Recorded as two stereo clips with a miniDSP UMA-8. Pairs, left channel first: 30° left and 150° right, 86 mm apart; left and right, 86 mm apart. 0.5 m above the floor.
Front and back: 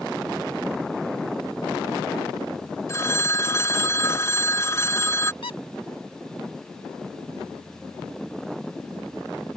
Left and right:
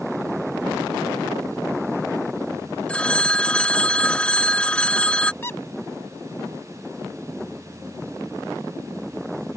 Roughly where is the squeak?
Ahead left.